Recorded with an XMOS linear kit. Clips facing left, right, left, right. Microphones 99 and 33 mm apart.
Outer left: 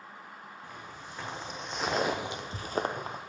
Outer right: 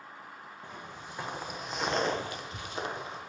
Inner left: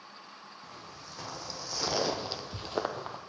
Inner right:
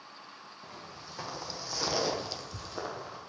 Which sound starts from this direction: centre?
Footsteps, at 0.6 s.